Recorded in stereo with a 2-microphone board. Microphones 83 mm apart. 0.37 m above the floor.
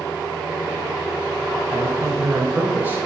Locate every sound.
1.7 s a man speaking: 25° right (ahead or behind), 1.3 m